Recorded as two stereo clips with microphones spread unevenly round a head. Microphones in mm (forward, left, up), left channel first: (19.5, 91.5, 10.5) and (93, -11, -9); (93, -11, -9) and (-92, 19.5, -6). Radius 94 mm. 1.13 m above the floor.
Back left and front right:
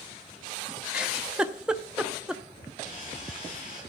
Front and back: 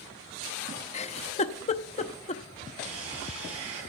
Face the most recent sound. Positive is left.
turn(degrees=-170)